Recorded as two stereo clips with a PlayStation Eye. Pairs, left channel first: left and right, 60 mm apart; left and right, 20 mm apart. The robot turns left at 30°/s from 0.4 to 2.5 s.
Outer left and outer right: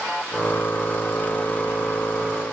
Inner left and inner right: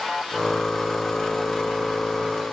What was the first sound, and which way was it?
Only background noise.